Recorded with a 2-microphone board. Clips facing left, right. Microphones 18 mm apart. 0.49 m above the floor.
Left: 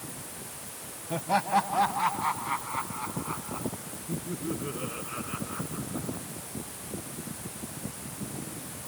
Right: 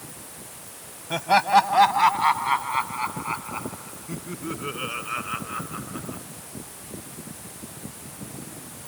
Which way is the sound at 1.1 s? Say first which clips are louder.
Right 8 dB; 70° right (ahead or behind).